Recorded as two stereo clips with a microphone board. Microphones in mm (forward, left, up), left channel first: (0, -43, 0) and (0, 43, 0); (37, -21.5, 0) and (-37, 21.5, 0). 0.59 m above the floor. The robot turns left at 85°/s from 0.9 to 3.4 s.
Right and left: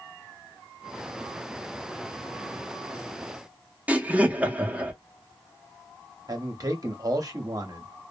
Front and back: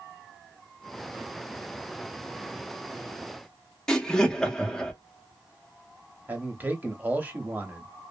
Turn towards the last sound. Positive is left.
turn(degrees=90)